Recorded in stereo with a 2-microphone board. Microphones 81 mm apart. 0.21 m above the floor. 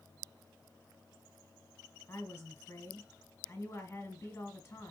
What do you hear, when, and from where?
2.1 s a woman speaking: 25° left (ahead or behind), 2.5 m